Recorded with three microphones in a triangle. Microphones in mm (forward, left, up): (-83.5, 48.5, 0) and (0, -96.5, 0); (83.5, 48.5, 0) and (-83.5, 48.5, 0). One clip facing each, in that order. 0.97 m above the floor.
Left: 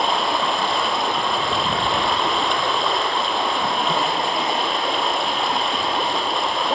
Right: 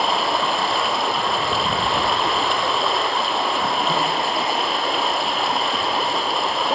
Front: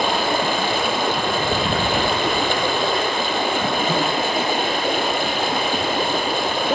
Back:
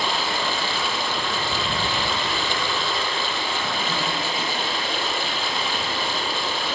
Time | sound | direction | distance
0.0 | running water | 30° left | 2.5 m